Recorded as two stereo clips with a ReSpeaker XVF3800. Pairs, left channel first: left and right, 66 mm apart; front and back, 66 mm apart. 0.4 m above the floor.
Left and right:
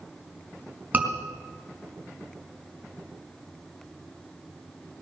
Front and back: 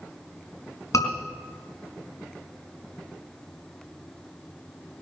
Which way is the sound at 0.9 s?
30° right.